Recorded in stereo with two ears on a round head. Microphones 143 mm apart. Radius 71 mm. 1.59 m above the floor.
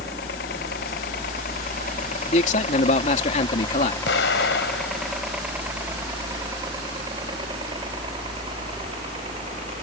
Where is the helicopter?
70° left (ahead or behind); by 9.8 s 40° right (ahead or behind).